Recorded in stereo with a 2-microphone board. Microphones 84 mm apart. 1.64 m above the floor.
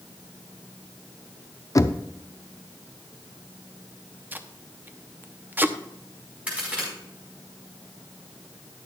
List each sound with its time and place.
1.8 s knocking: 40° left (ahead or behind), 0.5 m
4.3 s tape being pulled: 20° right (ahead or behind), 0.7 m
6.5 s a crack: 15° right (ahead or behind), 4.5 m